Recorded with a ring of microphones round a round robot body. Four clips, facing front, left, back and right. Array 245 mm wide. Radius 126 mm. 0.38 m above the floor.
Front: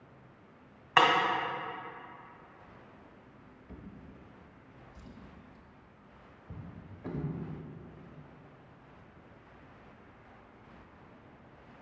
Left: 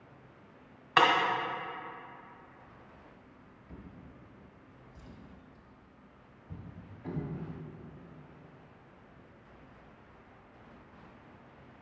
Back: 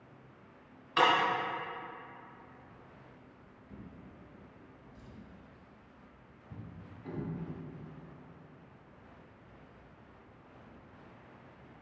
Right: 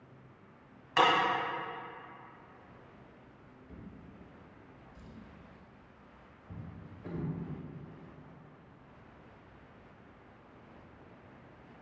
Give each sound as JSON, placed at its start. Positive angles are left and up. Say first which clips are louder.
{"t": 1.0, "sound": "breaking glass", "louder": "left 2 dB, front 3 dB", "azimuth_deg": 30, "distance_m": 1.2}
{"t": 3.7, "sound": "a drawer", "louder": "even, front 1 dB", "azimuth_deg": 0, "distance_m": 1.1}